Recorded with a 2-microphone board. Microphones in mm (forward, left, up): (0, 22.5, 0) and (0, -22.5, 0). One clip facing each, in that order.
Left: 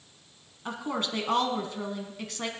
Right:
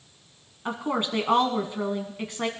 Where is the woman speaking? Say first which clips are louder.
Right 4 dB; 20° right (ahead or behind), 1.3 m.